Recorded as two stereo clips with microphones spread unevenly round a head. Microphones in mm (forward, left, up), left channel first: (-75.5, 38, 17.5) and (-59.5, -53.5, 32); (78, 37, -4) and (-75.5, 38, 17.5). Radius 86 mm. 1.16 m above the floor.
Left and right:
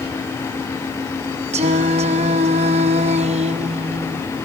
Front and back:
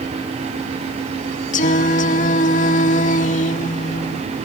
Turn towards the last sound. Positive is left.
turn(degrees=-50)